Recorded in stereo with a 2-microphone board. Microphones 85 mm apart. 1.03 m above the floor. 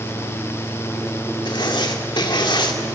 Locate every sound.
1.4 s writing: 70° left (ahead or behind), 2 m